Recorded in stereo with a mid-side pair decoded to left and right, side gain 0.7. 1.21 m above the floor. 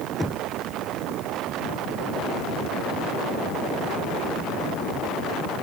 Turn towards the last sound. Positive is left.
turn(degrees=10)